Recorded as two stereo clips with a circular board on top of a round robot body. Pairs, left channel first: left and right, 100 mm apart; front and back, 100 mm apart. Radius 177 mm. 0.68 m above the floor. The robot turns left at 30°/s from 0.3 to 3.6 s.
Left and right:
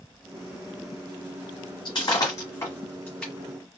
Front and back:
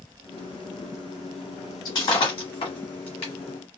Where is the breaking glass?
50° left, 1.1 m; by 3.3 s 5° left, 1.1 m.